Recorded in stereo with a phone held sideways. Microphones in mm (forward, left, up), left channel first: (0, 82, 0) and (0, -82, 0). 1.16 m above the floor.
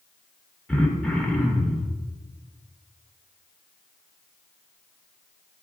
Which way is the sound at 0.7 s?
5° left (ahead or behind).